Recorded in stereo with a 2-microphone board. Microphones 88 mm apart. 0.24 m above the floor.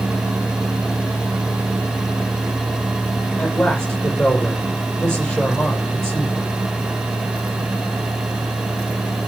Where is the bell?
I don't hear a bell.